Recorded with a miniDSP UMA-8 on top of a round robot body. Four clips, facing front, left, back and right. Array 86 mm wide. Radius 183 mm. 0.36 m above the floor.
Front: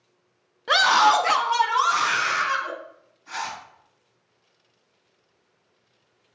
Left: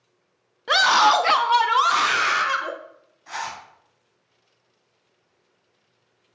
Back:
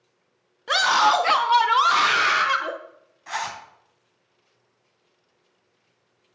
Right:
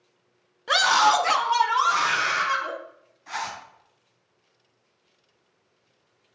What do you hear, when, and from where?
0.7 s a scream: 45° left, 0.9 m; by 2.7 s 145° left, 1.7 m
3.3 s a zipper: 175° left, 3 m